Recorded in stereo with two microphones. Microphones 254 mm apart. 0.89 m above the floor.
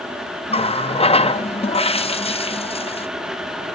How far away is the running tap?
About 0.5 m.